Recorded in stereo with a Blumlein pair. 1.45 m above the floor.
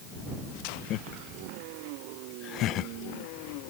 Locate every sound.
0.9 s laughter: 35° left